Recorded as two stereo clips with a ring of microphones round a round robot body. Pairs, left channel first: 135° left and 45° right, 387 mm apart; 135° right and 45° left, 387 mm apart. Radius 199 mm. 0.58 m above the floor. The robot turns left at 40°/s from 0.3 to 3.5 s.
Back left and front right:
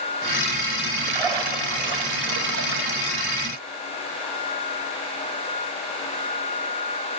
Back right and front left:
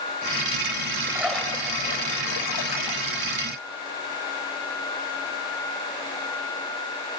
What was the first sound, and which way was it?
A splash, 35° right.